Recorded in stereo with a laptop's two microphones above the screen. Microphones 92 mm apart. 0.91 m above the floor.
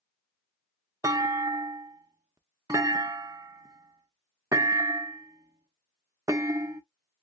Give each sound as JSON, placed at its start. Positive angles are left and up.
{"t": 1.0, "sound": "a clunk", "side_deg": -40, "distance_m": 0.5}